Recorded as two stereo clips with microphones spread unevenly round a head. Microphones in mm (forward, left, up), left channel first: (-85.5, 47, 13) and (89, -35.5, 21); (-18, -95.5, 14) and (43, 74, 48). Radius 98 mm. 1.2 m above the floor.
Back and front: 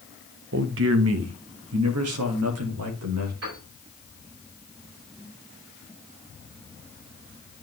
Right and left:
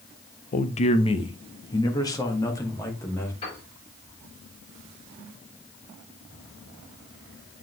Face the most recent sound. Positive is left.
turn(degrees=-50)